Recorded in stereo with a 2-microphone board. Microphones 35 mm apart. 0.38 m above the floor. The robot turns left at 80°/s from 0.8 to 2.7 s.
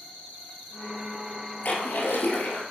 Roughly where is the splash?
Behind left.